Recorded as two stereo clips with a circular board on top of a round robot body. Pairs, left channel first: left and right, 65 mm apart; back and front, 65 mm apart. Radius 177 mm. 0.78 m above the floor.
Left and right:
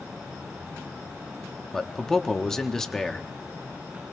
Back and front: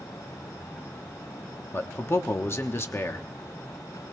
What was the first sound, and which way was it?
A man speaking, 170° left.